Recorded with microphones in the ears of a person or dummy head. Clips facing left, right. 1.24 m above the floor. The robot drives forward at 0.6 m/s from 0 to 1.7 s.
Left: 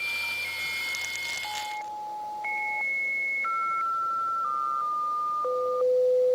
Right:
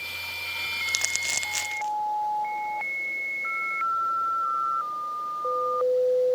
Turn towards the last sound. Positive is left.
turn(degrees=-50)  # may be behind; listen again after turning